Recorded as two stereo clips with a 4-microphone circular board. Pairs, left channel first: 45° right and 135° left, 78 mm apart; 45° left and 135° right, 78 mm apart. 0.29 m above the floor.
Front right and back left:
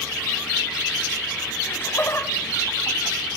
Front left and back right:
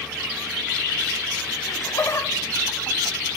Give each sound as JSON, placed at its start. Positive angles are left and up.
{"t": 1.7, "sound": "laughter", "azimuth_deg": 10, "distance_m": 2.5}